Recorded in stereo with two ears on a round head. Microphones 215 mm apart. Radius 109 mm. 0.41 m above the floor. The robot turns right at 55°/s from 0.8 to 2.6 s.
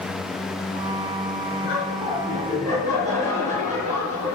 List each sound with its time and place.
1.6 s laughter: 110° left, 6 m; by 4.4 s 165° left, 6 m